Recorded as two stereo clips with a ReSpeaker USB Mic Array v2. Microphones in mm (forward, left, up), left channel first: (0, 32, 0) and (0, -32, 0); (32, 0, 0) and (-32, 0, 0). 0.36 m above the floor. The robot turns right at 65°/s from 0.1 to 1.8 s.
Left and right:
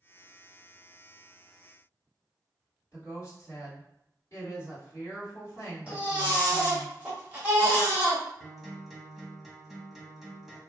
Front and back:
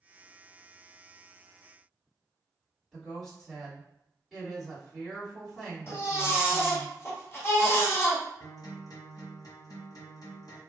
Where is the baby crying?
25° right, 1.0 m.